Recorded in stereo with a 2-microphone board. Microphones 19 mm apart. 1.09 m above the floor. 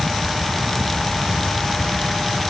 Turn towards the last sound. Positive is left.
No sound to turn to.